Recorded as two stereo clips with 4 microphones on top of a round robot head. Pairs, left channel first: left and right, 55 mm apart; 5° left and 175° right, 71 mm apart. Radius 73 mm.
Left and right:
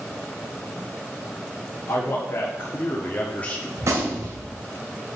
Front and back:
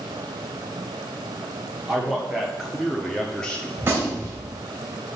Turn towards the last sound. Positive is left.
turn(degrees=-120)